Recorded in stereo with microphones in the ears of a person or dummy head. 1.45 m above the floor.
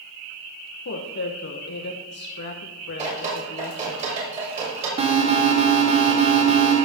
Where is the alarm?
30° right (ahead or behind), 1.8 m.